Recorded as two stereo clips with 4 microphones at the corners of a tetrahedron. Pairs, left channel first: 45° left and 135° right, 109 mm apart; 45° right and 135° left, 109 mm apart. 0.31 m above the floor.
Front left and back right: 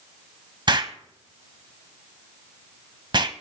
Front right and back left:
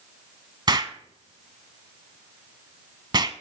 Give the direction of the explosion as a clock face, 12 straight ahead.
6 o'clock.